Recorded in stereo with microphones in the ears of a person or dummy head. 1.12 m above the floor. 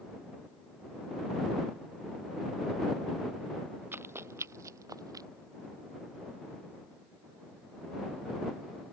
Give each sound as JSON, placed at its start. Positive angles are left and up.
{"t": 3.9, "sound": "running footsteps", "side_deg": -10}